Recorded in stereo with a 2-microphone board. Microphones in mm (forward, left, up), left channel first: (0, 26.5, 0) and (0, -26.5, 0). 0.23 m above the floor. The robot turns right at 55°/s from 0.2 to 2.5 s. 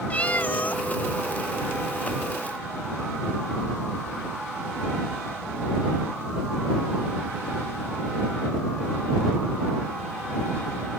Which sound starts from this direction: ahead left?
A cat meowing, at 0.1 s.